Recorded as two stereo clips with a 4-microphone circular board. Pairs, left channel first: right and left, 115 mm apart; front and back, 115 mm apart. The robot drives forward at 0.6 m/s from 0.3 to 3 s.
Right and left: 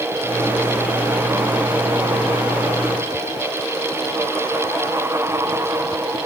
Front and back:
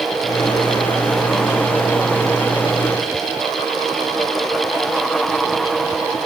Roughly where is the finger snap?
No finger snap in this recording.